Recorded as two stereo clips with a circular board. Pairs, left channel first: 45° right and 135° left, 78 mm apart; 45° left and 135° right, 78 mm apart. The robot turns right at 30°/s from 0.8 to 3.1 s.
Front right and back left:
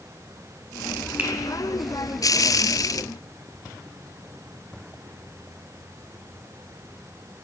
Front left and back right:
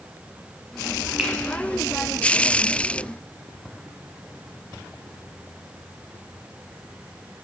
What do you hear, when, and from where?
1.2 s a finger snap: 160° left, 0.8 m; by 1.3 s 165° left, 0.8 m